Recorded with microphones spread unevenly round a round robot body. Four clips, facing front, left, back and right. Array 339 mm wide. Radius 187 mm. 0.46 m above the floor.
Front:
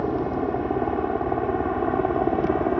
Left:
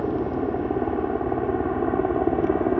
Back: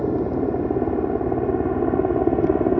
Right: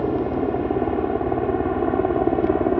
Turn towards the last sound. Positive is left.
turn(degrees=-165)